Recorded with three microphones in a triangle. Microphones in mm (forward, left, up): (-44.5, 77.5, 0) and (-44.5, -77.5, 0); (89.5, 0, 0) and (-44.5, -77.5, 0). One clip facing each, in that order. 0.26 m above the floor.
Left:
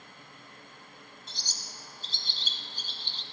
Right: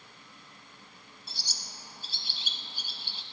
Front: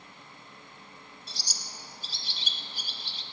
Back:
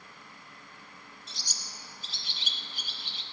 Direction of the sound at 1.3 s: 10° right.